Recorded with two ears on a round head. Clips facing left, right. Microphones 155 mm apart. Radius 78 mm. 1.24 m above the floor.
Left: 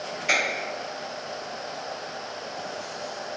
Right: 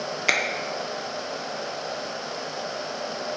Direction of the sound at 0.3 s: 75° right (ahead or behind).